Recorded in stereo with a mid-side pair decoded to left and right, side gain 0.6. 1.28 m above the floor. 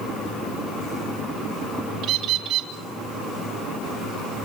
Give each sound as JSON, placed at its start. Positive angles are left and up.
{"t": 2.0, "sound": "a bird", "azimuth_deg": -65, "distance_m": 2.5}